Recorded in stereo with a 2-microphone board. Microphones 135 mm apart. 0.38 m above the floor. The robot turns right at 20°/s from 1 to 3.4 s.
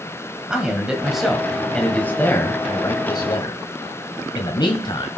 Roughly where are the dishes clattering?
I don't hear dishes clattering.